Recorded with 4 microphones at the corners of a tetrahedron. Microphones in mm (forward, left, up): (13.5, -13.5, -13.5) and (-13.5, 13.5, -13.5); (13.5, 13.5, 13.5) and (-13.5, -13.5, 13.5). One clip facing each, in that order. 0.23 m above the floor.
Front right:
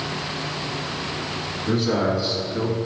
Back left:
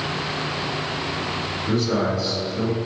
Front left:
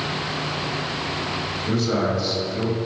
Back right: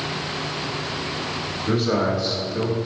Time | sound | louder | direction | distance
1.7 | a man speaking | front right 1 dB, back right 2 dB | 100° right | 1.1 m